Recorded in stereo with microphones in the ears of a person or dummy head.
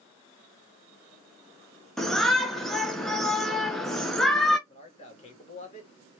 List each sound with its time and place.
2.0 s a shout: centre (ahead or behind), 1.1 m
4.7 s a man speaking: 35° left (ahead or behind), 2 m